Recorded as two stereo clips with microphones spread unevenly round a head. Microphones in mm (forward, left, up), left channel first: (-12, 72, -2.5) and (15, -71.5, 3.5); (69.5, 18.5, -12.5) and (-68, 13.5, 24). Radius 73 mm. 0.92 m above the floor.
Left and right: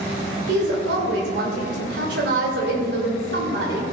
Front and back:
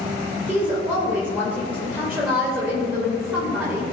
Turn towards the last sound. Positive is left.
turn(degrees=-95)